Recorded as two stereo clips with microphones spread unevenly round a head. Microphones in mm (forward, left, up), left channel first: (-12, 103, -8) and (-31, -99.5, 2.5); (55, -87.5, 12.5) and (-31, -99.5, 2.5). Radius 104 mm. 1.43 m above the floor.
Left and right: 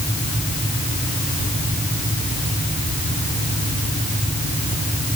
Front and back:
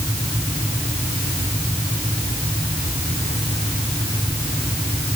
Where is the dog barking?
I don't hear a dog barking.